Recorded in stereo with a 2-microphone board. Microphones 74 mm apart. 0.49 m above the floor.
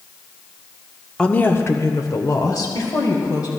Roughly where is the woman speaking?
Centre.